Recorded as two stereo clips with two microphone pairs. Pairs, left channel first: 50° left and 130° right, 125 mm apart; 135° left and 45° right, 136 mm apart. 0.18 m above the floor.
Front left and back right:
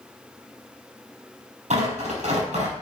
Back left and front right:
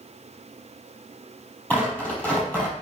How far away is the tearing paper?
About 4.5 m.